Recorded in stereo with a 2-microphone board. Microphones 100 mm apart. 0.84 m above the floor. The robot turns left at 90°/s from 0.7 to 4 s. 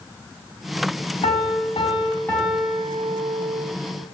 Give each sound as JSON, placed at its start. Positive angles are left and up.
{"t": 1.2, "sound": "a piano", "azimuth_deg": 115, "distance_m": 3.5}